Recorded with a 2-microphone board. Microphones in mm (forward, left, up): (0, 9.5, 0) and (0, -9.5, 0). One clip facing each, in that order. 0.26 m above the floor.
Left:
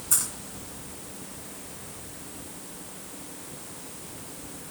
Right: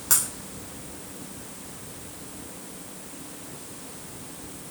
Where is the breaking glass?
70° right (ahead or behind), 5.5 m.